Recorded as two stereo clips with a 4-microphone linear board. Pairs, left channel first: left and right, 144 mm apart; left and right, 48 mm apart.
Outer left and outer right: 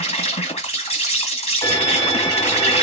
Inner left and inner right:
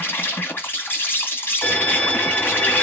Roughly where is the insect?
Left.